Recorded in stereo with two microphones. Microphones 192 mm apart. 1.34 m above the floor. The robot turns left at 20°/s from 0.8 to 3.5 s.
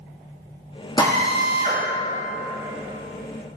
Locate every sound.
1.0 s a drill: 25° left (ahead or behind), 2.5 m; by 1.8 s 40° left (ahead or behind), 2.5 m